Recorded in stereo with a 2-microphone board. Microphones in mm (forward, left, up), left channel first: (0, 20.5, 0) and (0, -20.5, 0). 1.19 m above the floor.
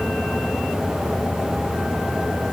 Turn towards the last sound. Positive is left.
No sound to turn to.